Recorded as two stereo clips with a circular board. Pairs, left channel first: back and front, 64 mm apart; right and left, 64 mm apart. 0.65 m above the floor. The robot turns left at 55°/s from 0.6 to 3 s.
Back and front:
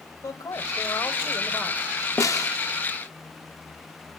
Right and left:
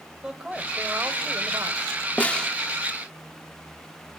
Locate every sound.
0.2 s a man speaking: 165° left, 2.5 m; by 2.0 s 90° left, 2.5 m
2.2 s a snare drum: 155° right, 0.7 m; by 2.5 s 170° right, 0.7 m